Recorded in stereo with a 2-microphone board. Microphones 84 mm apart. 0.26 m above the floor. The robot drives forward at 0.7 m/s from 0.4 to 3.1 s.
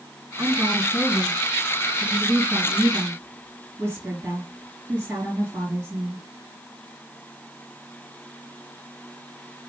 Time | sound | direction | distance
0.4 | a woman speaking | 35° right (ahead or behind) | 3.5 m